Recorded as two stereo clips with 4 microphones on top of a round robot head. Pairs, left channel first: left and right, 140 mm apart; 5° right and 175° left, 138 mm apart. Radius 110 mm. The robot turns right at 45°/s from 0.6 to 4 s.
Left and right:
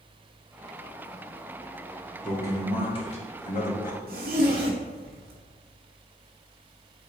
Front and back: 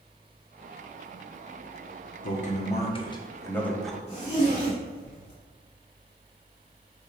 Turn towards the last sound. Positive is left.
turn(degrees=-65)